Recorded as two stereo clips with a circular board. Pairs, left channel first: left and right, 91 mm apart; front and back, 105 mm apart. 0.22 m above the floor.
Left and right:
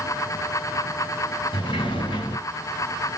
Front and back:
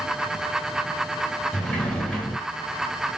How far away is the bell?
No bell in this recording.